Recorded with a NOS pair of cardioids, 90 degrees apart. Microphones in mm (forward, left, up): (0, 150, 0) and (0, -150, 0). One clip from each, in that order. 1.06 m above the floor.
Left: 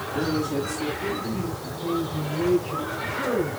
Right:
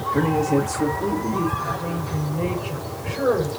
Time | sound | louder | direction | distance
0.1 | a man speaking | right 5 dB | 65° right | 2 m
1.6 | a woman speaking | right 1 dB | 70° right | 5.5 m